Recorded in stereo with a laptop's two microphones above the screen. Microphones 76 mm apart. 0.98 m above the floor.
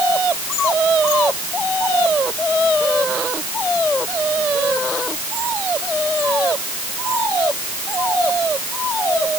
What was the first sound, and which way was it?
Only background noise.